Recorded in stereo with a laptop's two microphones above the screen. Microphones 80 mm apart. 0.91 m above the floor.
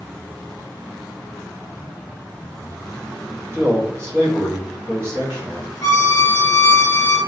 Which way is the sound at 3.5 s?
35° right (ahead or behind).